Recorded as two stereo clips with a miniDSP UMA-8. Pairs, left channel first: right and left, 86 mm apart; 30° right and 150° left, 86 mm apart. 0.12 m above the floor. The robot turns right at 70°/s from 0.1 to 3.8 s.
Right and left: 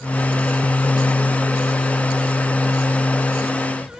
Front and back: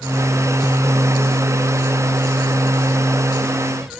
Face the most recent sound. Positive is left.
No sound to turn to.